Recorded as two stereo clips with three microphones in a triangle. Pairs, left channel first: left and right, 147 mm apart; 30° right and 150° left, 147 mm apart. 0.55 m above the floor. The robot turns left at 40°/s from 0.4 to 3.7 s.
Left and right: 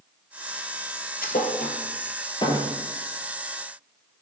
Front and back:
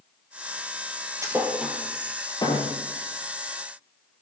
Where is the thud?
80° left, 2.5 m; by 2.7 s 20° left, 2.5 m.